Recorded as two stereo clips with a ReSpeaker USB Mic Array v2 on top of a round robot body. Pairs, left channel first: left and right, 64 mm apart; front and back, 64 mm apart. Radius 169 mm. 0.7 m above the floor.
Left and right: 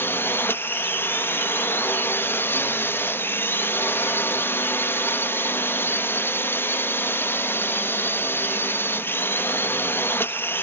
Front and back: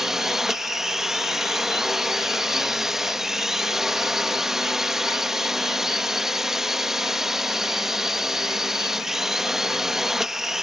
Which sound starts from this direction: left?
A drone, at 0.0 s.